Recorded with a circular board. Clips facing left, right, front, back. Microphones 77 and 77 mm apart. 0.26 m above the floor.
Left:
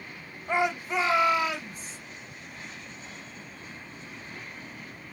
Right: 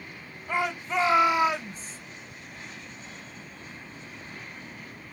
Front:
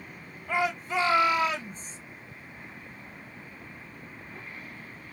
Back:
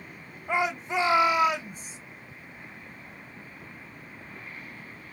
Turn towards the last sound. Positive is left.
turn(degrees=-105)